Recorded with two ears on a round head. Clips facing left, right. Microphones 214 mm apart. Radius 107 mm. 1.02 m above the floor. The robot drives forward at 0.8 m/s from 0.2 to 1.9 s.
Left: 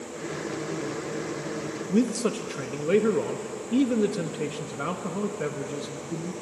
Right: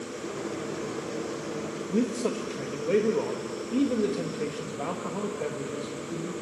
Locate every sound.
1.9 s a man speaking: 20° left (ahead or behind), 1.4 m